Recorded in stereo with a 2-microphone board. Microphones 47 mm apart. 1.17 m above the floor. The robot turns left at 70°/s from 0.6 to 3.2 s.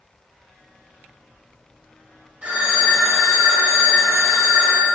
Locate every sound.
2.4 s a phone ringing: 25° right, 3 m; by 4.9 s 80° right, 3 m